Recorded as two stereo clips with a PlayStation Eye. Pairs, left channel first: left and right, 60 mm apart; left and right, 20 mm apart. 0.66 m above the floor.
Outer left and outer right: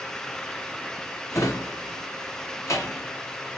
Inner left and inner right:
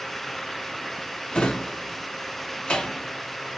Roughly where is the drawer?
Left.